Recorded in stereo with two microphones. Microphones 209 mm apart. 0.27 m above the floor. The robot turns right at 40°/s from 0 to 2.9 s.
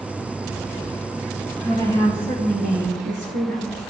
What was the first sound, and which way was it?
A woman speaking, 160° right.